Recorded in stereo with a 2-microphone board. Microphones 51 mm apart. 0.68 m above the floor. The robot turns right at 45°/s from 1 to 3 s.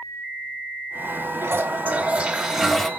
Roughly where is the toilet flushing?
Ahead right.